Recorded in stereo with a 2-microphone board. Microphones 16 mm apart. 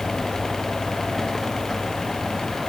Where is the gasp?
No gasp in this recording.